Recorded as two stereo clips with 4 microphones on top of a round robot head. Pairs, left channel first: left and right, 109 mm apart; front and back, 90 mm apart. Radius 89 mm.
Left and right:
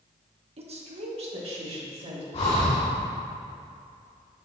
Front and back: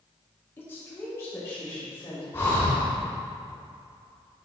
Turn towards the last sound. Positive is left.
turn(degrees=65)